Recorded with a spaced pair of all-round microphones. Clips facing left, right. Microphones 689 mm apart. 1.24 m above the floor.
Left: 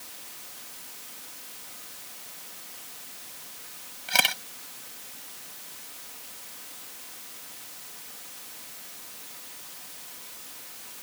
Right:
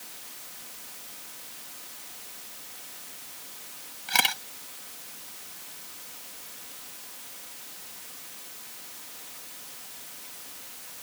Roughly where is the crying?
No crying in this recording.